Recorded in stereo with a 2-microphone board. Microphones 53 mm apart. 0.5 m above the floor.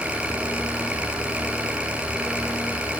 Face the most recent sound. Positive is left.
turn(degrees=-20)  # may be behind; listen again after turning